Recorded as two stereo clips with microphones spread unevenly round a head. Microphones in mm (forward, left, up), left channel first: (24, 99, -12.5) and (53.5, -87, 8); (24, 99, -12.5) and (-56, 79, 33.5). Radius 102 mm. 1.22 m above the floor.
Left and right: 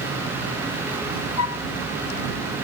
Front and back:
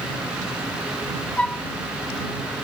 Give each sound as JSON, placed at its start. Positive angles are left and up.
{"t": 1.4, "sound": "a flute", "azimuth_deg": 95}